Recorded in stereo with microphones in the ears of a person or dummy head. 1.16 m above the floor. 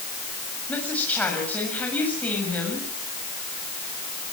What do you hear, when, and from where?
0.7 s a woman speaking: 10° left (ahead or behind), 7.5 m